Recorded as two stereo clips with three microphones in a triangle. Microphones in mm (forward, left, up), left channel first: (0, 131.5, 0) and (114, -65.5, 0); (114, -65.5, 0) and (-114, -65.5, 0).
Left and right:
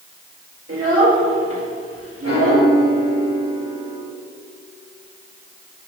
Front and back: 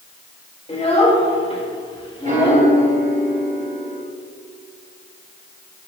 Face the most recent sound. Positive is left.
turn(degrees=125)